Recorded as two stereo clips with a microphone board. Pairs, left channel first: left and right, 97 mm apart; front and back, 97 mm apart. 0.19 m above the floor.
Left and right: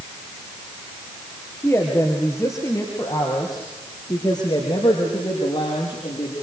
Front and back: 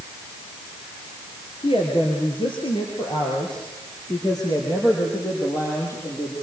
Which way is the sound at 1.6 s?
25° left.